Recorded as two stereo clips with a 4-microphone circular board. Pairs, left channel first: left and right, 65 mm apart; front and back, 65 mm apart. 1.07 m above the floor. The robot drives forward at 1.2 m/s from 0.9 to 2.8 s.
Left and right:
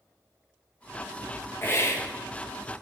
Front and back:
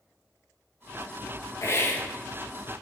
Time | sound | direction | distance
1.6 | a hiss | 40° left | 1.5 m